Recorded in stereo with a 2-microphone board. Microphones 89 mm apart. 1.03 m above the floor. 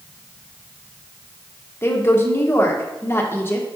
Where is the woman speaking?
25° left (ahead or behind), 1.1 m.